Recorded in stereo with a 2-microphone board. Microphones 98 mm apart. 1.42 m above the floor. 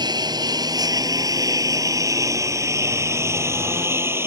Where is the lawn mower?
45° right (ahead or behind); by 4.3 s 25° right (ahead or behind).